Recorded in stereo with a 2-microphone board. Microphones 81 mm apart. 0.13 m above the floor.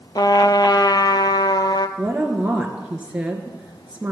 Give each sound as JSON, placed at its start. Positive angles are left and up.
{"t": 0.1, "sound": "a trumpet", "side_deg": 60, "distance_m": 0.5}
{"t": 2.0, "sound": "a woman speaking", "side_deg": -15, "distance_m": 1.8}